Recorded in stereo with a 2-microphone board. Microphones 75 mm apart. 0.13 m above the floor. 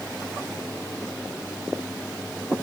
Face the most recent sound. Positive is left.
No sound to turn to.